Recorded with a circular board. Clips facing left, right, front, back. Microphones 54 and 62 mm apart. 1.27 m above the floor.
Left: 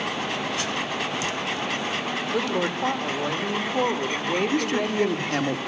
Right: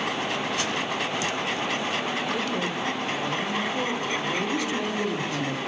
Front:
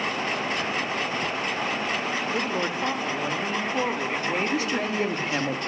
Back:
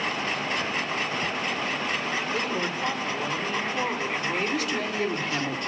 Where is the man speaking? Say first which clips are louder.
Left 3 dB, front 2 dB; 60° left, 2 m.